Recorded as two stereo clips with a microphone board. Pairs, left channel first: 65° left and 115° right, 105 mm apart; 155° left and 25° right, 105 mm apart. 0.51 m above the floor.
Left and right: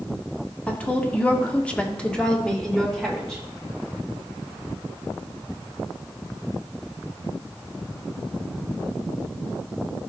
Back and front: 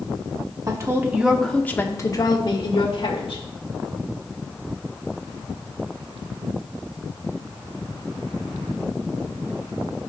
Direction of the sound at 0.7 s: Straight ahead.